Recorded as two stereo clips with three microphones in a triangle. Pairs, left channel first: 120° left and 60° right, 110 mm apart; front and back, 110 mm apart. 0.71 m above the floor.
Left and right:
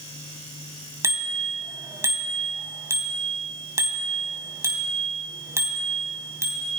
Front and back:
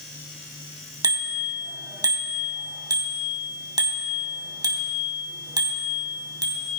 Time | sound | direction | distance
1.0 | a bicycle bell | 125° right | 3.5 m